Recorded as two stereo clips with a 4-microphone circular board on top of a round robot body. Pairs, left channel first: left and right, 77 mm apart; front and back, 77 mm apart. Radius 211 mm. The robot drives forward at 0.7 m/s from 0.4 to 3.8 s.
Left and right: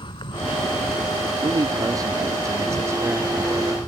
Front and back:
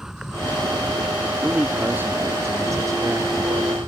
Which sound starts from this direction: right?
A man speaking, at 1.4 s.